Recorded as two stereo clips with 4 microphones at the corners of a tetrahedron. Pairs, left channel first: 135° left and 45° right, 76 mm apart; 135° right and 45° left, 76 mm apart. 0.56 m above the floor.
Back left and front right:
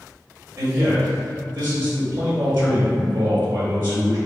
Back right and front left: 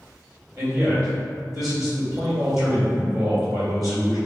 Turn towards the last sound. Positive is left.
turn(degrees=10)